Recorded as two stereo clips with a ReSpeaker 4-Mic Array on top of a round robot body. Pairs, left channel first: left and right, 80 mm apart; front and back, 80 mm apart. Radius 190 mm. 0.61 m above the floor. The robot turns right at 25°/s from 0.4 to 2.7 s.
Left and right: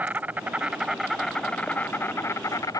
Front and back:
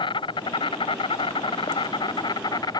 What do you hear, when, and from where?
0.0 s an insect: 20° right; by 2.8 s 40° left